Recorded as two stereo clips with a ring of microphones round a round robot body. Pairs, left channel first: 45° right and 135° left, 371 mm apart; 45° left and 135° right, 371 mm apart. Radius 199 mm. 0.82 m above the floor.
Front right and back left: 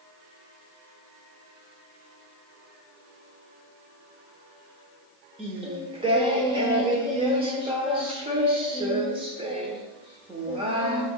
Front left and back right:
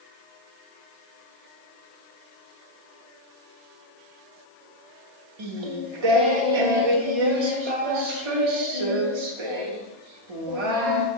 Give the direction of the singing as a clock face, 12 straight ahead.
5 o'clock.